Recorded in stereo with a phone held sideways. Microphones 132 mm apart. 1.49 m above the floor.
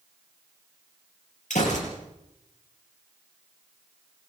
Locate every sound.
1.5 s a gunshot: 70° left (ahead or behind), 7 m